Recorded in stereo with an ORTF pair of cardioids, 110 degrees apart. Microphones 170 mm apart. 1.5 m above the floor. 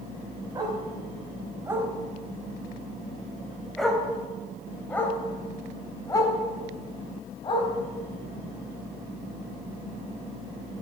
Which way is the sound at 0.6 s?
25° right.